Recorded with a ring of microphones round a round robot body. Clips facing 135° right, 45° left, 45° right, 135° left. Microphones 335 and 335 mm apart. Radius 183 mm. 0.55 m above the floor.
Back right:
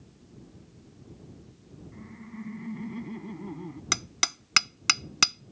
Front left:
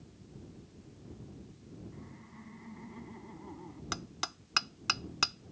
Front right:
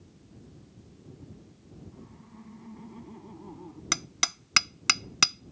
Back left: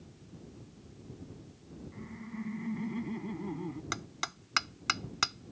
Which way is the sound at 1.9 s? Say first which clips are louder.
Back right 8 dB, back left 7 dB; 175° right.